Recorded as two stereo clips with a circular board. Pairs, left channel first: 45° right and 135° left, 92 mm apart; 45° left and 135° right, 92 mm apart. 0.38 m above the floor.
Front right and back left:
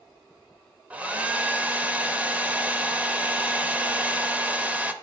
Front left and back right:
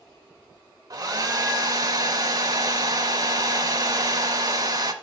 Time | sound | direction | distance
0.9 | a hair dryer | 155° right | 0.6 m